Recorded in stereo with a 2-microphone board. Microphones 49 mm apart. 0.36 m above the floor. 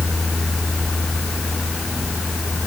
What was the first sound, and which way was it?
Only background noise.